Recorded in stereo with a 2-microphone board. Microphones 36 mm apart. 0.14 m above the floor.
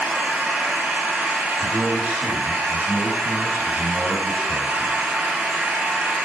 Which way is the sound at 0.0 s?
45° right (ahead or behind).